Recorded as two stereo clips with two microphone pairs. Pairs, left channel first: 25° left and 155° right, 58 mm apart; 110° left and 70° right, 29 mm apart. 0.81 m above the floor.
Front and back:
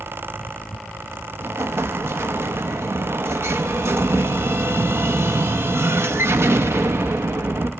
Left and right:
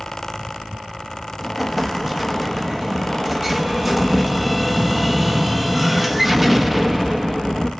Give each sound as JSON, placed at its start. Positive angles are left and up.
{"t": 1.4, "sound": "an explosion", "azimuth_deg": -150, "distance_m": 0.8}